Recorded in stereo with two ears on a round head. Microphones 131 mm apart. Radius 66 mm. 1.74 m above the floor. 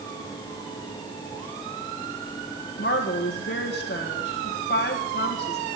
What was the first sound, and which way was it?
A woman speaking, 75° left (ahead or behind).